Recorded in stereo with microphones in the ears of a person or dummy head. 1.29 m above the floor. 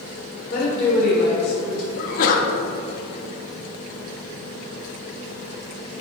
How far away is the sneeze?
About 0.8 m.